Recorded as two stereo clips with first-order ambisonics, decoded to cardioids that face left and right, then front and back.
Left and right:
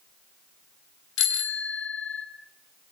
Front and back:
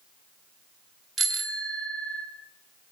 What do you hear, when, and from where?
1.2 s a bicycle bell: 105° left, 2 m